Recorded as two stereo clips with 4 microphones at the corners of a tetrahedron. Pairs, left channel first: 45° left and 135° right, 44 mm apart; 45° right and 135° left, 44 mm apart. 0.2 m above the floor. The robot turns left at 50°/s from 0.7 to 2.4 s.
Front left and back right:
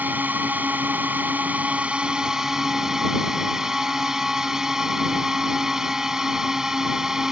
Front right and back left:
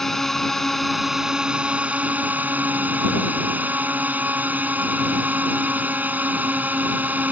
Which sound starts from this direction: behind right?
A drone, at 0.0 s.